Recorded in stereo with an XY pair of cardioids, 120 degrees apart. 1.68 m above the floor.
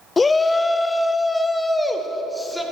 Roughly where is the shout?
Ahead left.